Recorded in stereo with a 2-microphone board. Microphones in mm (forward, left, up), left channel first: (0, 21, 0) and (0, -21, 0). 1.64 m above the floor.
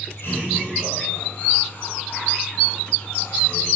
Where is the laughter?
85° left, 9.5 m; by 3.7 s 70° left (ahead or behind), 8.5 m.